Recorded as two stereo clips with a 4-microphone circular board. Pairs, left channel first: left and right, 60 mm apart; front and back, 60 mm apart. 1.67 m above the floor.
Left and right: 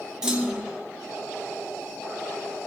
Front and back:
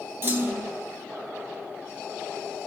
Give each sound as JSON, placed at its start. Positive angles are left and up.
{"t": 0.2, "sound": "a clunk", "azimuth_deg": -160, "distance_m": 0.9}